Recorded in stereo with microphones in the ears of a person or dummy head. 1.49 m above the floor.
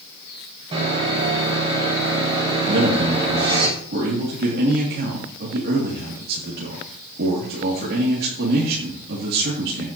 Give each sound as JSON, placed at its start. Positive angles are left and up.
{"t": 0.7, "sound": "sawing", "side_deg": -30, "distance_m": 7.5}
{"t": 2.7, "sound": "a man speaking", "side_deg": -55, "distance_m": 3.0}